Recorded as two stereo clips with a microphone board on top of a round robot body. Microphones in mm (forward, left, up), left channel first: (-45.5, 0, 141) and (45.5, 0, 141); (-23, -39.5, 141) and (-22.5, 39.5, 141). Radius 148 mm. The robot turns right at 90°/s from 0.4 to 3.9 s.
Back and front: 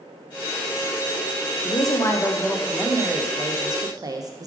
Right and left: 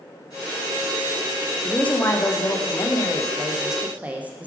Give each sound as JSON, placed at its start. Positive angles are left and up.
{"t": 1.6, "sound": "a woman speaking", "azimuth_deg": -175, "distance_m": 0.7}